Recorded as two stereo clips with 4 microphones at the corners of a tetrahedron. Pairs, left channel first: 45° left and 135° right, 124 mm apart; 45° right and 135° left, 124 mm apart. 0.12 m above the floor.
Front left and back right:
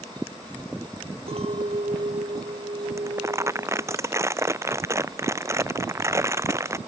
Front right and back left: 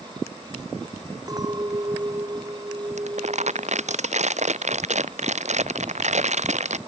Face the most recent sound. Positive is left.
turn(degrees=155)